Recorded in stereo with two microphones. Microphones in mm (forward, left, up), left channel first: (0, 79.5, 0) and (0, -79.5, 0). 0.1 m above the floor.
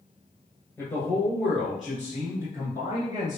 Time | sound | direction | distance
0.8 | a man speaking | 15° left (ahead or behind) | 1.4 m